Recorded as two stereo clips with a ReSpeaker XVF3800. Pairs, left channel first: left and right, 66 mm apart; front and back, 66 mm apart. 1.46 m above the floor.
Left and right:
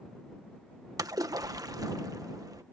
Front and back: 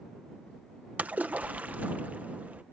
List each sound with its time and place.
1.0 s a splash: 115° right